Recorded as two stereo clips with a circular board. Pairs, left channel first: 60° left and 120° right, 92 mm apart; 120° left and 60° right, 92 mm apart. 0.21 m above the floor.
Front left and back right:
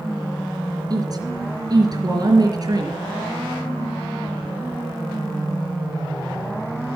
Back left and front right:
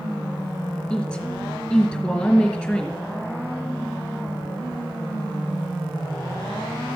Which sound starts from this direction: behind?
A woman speaking, at 0.9 s.